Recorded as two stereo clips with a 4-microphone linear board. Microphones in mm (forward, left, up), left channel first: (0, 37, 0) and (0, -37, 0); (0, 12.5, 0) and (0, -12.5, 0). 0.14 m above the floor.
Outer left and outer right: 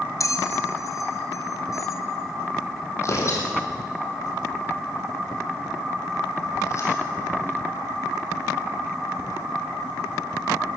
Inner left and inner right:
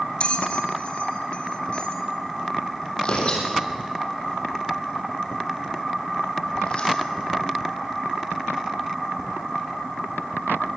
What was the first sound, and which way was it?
A bell, 50° left (ahead or behind).